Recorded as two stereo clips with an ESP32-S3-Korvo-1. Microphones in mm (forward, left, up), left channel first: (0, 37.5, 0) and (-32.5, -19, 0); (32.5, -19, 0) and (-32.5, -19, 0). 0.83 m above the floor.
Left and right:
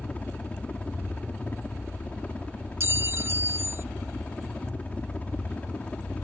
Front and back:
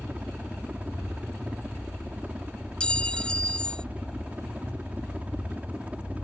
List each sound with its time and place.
0.0 s a helicopter: 120° left
2.8 s a clink: 75° right